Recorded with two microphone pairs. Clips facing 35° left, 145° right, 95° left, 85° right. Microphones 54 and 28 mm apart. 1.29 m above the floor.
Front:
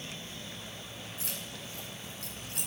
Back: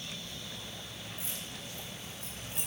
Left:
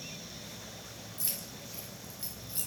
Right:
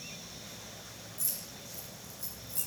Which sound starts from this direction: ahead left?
Keys jangling, at 1.2 s.